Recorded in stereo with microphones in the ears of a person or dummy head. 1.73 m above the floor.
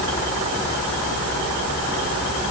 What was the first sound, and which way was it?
Only background noise.